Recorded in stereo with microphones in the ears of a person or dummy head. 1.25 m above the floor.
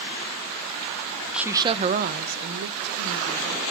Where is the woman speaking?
5° right (ahead or behind), 0.7 m; by 3.6 s 80° right, 1.8 m.